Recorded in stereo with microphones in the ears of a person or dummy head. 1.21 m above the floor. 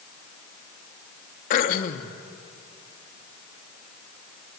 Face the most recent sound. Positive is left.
turn(degrees=50)  # may be behind; listen again after turning